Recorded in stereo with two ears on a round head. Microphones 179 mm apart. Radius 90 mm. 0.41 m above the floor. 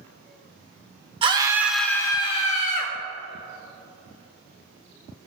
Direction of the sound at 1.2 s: 25° right (ahead or behind).